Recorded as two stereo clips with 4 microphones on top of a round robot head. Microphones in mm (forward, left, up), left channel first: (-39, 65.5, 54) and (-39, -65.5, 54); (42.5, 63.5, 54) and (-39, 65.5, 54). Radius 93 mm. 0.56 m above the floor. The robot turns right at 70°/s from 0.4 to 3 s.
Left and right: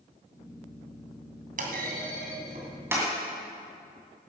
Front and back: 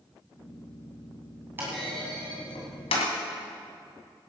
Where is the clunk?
105° right, 2 m; by 3.1 s 10° right, 2 m.